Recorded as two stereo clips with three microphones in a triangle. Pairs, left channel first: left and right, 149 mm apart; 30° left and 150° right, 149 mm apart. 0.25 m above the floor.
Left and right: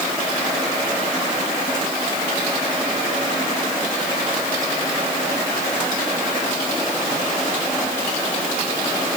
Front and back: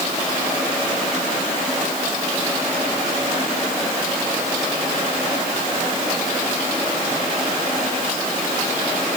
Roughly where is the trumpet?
No trumpet in this recording.